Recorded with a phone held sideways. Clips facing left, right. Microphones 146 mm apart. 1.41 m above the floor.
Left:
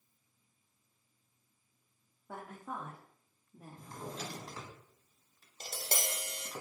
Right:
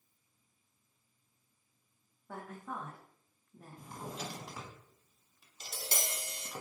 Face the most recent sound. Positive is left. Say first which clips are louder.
# left 2 dB
turn(degrees=55)  # may be behind; listen again after turning